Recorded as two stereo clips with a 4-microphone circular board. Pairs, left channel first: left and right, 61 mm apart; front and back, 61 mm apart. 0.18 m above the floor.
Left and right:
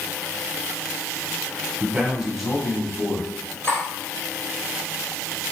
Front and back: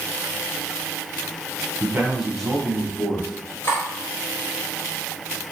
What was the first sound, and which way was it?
A man speaking, 135° right.